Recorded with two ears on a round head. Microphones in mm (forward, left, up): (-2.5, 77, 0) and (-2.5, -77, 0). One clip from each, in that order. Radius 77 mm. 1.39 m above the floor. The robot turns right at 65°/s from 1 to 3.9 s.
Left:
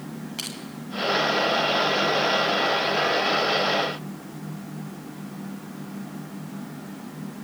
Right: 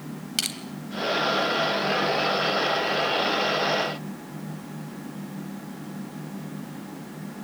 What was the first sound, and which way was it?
Crushing, 75° right (ahead or behind).